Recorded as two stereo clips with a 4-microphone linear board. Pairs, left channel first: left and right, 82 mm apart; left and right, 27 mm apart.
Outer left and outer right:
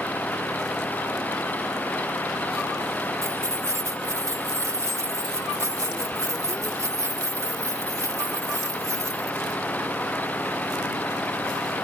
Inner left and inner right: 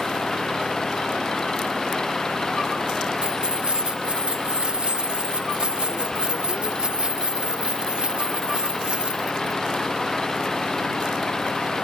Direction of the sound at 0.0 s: 20° left (ahead or behind).